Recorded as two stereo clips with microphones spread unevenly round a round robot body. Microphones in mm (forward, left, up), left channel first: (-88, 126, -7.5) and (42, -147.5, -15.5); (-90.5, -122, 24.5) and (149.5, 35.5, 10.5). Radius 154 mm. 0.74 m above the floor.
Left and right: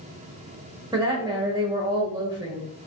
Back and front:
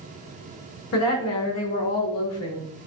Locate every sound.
0.9 s a woman speaking: 135° right, 0.9 m